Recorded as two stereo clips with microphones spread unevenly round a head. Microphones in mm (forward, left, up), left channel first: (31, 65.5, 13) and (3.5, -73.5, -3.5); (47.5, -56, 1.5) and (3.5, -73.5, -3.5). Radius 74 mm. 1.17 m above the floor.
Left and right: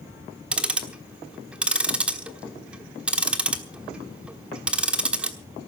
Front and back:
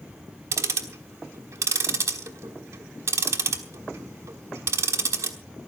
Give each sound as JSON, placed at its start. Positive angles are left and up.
{"t": 0.5, "sound": "ticking", "azimuth_deg": 175, "distance_m": 1.1}